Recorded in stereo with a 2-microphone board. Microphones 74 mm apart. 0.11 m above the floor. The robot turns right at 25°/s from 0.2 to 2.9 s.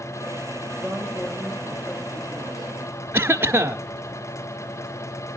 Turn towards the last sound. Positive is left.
turn(degrees=-30)  # may be behind; listen again after turning